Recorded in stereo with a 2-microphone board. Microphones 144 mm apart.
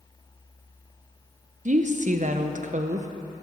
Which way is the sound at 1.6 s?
60° right (ahead or behind).